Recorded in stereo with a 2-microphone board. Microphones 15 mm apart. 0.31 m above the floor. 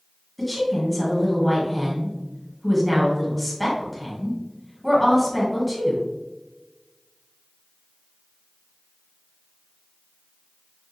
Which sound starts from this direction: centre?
A woman speaking, at 0.4 s.